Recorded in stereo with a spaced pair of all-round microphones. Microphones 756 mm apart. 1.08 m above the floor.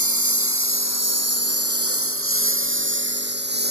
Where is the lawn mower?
20° right (ahead or behind); by 3.7 s 10° right (ahead or behind).